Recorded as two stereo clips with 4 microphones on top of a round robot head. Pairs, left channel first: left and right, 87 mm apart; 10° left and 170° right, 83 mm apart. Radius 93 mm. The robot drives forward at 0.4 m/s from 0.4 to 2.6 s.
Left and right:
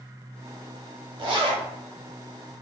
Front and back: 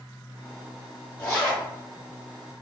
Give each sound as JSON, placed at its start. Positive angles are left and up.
{"t": 1.2, "sound": "a zipper", "azimuth_deg": -65, "distance_m": 0.8}